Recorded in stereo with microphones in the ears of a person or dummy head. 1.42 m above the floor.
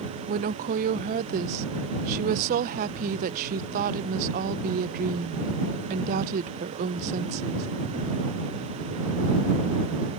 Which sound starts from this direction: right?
A woman speaking, at 0.3 s.